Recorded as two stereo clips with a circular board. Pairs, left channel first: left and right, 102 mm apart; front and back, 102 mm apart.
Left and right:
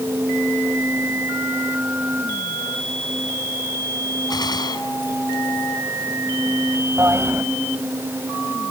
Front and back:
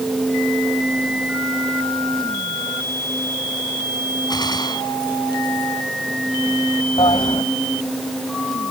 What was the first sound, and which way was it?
A gunshot, 45° left.